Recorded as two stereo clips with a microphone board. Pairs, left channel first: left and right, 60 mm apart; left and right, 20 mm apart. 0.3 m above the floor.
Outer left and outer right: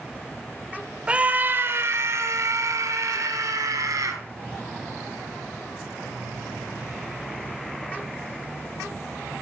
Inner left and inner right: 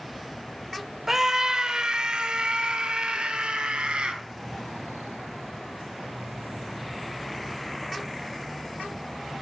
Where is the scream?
20° right (ahead or behind), 1.0 m; by 4.2 s 75° right (ahead or behind), 4 m.